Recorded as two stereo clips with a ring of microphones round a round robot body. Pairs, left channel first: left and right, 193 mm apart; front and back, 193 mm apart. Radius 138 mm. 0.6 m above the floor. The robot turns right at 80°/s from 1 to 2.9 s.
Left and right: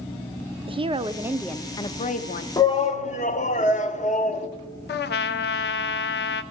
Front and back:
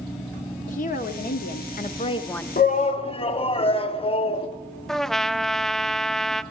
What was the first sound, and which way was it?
A woman speaking, 35° right.